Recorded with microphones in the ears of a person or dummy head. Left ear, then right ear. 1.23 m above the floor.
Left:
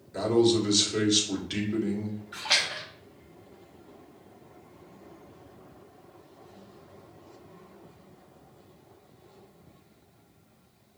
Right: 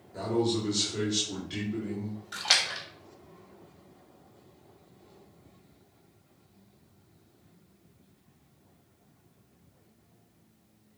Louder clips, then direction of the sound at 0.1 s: Left 6 dB; 30° left (ahead or behind).